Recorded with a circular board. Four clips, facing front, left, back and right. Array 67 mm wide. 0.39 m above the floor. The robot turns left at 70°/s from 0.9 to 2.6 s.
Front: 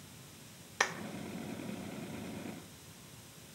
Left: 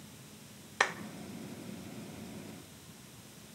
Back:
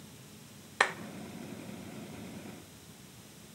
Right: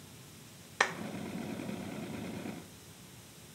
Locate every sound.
0.8 s a clap: straight behind, 0.6 m; by 1.0 s 175° left, 0.6 m